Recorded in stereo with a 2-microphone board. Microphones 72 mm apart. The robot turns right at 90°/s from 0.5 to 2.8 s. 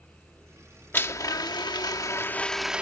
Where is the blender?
30° left; by 2.8 s 165° right.